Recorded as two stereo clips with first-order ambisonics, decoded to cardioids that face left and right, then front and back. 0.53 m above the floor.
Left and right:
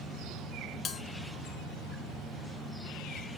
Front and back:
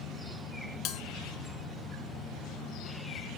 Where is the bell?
30° left, 0.7 m.